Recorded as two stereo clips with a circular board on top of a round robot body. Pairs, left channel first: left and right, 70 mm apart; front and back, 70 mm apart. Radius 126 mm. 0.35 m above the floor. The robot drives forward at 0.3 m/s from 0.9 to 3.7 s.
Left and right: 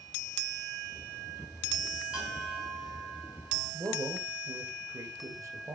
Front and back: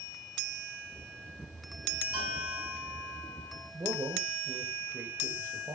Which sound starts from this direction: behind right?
A man speaking, at 3.7 s.